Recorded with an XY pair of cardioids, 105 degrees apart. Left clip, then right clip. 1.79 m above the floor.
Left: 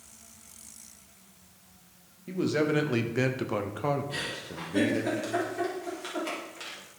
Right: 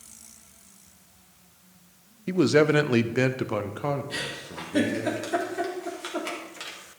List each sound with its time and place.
2.3 s a man speaking: 65° right, 0.9 m; by 5.1 s 15° left, 1.9 m
4.1 s a giggle: 35° right, 4 m